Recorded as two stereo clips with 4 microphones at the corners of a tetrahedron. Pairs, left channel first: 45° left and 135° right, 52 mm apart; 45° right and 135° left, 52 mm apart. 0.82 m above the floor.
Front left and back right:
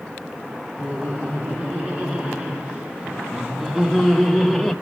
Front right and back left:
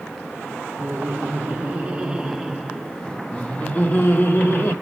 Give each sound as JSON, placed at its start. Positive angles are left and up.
{"t": 0.8, "sound": "laughter", "azimuth_deg": 170, "distance_m": 1.5}